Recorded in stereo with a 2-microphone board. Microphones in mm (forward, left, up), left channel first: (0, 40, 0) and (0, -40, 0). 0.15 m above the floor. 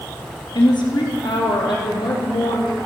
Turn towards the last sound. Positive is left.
turn(degrees=80)